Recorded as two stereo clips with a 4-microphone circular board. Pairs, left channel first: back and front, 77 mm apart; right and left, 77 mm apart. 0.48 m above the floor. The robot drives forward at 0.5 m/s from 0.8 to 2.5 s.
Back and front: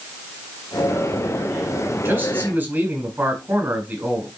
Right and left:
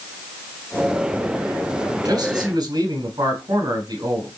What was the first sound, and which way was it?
A man speaking, 55° left.